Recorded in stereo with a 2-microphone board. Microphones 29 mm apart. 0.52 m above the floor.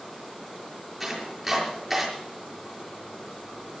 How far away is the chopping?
About 6 m.